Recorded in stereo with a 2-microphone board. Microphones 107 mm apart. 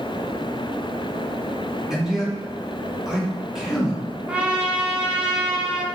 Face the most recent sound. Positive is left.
turn(degrees=-10)  # may be behind; listen again after turning